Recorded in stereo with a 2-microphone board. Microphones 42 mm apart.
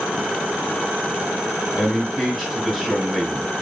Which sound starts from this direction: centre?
A man speaking, at 1.7 s.